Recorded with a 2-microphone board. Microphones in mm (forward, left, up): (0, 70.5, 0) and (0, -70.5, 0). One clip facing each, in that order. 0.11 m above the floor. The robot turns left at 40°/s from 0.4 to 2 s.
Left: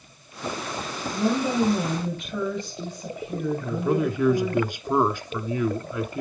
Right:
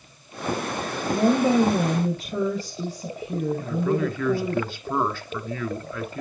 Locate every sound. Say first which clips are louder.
1.1 s a woman speaking: right 5 dB; 100° right, 2.5 m; by 4.6 s 140° right, 2.5 m
3.6 s a man speaking: left 2 dB; 15° left (ahead or behind), 1.1 m